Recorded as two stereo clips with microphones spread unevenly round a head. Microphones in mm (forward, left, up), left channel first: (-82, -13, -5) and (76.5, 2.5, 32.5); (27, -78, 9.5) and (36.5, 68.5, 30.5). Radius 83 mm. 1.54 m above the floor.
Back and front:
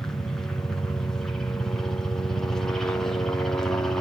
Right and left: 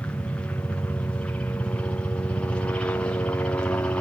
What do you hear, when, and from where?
0.0 s a helicopter: 135° right